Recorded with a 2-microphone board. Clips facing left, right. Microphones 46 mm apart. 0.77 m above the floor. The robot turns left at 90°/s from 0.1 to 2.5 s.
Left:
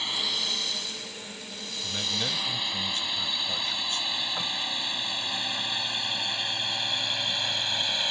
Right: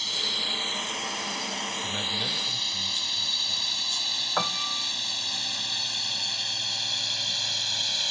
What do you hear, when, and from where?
0.0 s a drone: 20° left (ahead or behind)
1.8 s a man speaking: 160° right; by 4.1 s 140° left
4.4 s a piano: 45° right (ahead or behind)